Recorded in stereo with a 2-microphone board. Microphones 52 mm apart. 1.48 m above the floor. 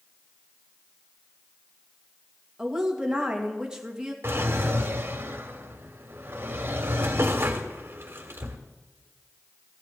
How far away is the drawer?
About 1.6 m.